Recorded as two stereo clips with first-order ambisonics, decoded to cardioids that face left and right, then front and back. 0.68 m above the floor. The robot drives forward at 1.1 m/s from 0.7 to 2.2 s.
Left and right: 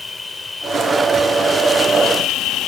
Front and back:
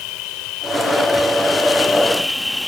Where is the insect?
10° left; by 2.7 s 80° left.